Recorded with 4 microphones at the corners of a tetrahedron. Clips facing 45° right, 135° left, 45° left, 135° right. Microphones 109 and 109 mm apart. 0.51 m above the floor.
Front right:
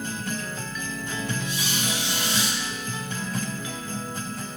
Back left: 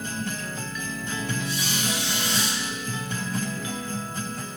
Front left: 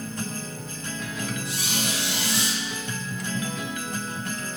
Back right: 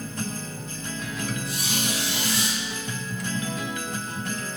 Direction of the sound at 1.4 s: 20° left.